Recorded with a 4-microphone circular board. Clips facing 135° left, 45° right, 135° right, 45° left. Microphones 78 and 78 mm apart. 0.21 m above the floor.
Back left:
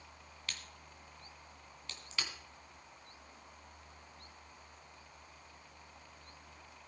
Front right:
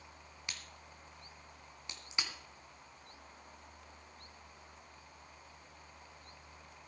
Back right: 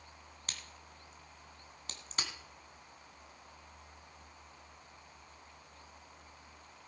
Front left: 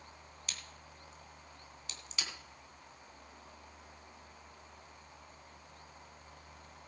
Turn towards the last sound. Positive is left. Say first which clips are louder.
# back left 1 dB, back right 1 dB
turn(degrees=-110)